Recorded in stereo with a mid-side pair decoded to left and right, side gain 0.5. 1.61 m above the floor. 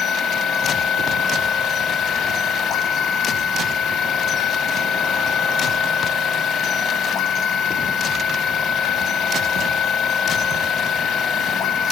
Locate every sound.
0.0 s a machine running: 60° left, 0.8 m